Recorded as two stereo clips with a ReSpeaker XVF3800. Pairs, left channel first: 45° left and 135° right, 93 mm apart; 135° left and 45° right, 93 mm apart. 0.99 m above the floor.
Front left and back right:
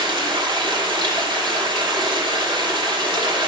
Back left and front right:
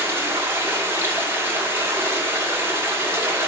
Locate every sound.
0.0 s running water: 110° right, 1.1 m